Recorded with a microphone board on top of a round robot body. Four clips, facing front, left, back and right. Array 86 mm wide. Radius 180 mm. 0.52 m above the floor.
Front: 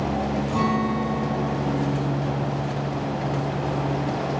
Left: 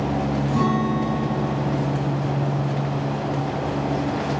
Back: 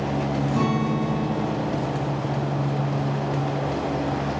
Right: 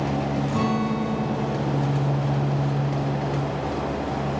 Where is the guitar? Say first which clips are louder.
Left 4 dB, front 1 dB; 55° right, 3.5 m.